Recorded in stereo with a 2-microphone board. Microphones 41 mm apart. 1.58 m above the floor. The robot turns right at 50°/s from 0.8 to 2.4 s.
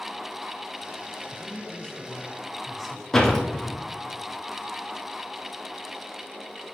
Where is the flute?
No flute in this recording.